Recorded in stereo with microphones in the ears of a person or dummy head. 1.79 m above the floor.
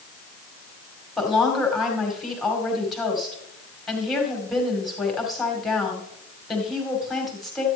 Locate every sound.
1.2 s a woman speaking: centre (ahead or behind), 2 m